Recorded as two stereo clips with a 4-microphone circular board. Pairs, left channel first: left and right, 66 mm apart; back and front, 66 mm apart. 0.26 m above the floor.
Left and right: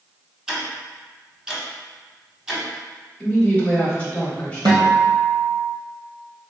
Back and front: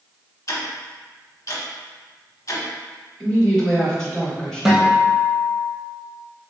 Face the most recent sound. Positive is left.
turn(degrees=-85)